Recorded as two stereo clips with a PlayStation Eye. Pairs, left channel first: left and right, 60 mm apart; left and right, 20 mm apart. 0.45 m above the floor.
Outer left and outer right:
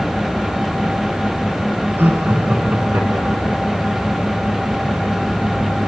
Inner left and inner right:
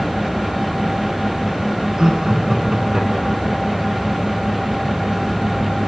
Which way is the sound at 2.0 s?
35° right (ahead or behind).